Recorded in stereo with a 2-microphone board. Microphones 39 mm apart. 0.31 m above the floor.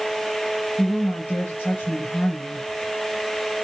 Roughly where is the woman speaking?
Left.